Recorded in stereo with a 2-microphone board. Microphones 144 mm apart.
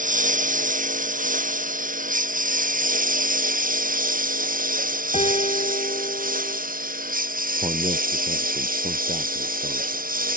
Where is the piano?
50° left (ahead or behind).